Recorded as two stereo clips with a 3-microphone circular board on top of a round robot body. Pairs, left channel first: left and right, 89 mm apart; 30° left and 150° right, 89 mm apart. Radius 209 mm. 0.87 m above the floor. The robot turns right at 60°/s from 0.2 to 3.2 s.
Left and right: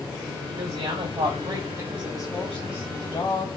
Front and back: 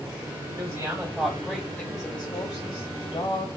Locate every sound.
0.6 s a woman speaking: 100° right, 1.9 m; by 3.5 s 55° left, 1.9 m